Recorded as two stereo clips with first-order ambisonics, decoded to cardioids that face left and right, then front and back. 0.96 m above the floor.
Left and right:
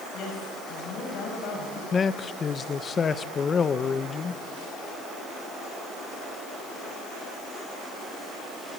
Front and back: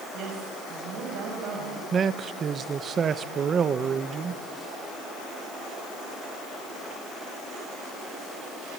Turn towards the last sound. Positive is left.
turn(degrees=140)